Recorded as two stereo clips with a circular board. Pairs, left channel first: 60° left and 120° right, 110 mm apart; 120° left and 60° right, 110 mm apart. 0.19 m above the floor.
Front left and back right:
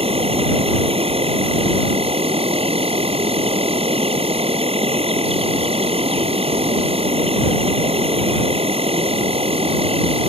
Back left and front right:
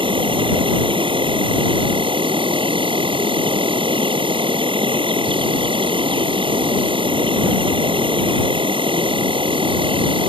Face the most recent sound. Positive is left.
turn(degrees=-95)